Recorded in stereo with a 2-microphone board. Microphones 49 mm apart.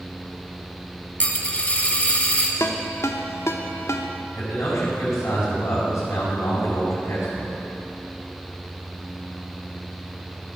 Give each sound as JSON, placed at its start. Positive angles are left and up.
{"t": 1.2, "sound": "a dropped coin", "side_deg": 30, "distance_m": 1.1}
{"t": 2.6, "sound": "a ringtone", "side_deg": 75, "distance_m": 0.8}
{"t": 4.3, "sound": "a man speaking", "side_deg": 80, "distance_m": 4.5}